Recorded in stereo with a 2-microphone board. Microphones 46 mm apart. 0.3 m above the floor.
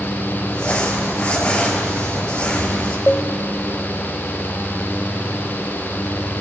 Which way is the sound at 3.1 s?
25° left (ahead or behind).